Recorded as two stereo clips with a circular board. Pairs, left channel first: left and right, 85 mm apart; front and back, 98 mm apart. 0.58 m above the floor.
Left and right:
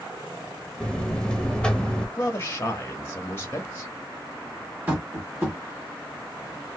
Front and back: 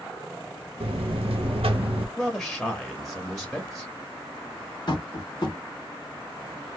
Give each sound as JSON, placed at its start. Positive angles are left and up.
{"t": 0.8, "sound": "a buzzer", "azimuth_deg": 170, "distance_m": 0.8}
{"t": 2.2, "sound": "a man speaking", "azimuth_deg": 90, "distance_m": 1.1}
{"t": 4.9, "sound": "tapping", "azimuth_deg": -25, "distance_m": 2.0}